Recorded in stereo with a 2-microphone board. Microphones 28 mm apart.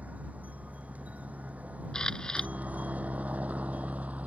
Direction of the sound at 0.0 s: 75° right (ahead or behind).